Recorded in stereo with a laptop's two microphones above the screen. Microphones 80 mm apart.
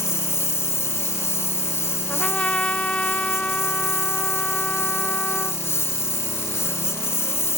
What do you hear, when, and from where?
0.0 s a lawn mower: 35° left (ahead or behind)
2.1 s a trumpet: 15° left (ahead or behind)